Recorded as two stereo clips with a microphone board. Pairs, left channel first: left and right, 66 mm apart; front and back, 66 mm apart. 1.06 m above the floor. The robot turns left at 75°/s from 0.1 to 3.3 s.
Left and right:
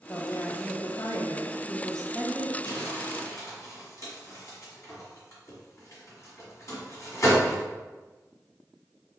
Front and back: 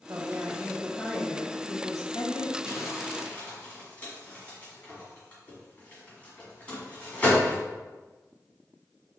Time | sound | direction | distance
0.1 | a woman speaking | 150° left | 0.7 m
2.6 | crumpling | 115° left | 1.6 m